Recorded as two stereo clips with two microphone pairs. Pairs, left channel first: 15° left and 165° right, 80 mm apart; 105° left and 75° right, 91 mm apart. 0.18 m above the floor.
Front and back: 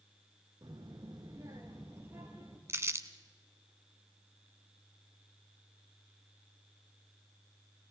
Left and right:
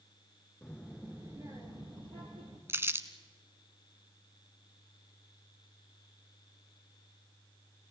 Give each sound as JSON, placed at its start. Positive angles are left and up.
{"t": 0.6, "sound": "a child speaking", "azimuth_deg": 180, "distance_m": 1.2}
{"t": 2.7, "sound": "crumpling", "azimuth_deg": -125, "distance_m": 1.0}